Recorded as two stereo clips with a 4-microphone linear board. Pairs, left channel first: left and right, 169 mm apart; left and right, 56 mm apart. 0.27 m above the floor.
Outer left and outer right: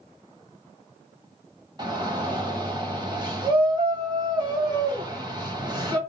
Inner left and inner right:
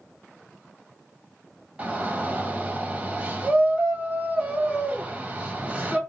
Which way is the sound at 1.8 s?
25° right (ahead or behind).